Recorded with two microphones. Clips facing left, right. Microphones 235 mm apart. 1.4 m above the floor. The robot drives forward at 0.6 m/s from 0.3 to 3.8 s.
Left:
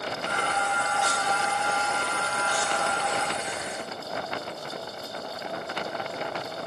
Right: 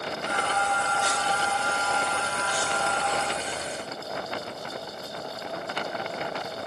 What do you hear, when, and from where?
0.2 s singing: 25° left (ahead or behind), 2.5 m; by 3.2 s 15° left (ahead or behind), 4 m